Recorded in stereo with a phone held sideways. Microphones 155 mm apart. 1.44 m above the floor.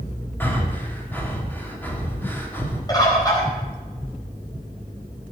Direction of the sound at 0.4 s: 15° left (ahead or behind).